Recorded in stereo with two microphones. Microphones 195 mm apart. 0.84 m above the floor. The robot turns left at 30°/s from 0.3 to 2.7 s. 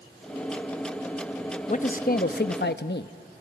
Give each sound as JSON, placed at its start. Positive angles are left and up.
{"t": 1.7, "sound": "a man speaking", "azimuth_deg": 135, "distance_m": 0.8}